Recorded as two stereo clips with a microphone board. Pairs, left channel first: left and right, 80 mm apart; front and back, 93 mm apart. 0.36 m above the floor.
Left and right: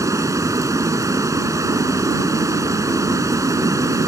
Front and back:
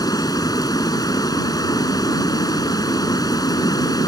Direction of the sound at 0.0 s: 45° right.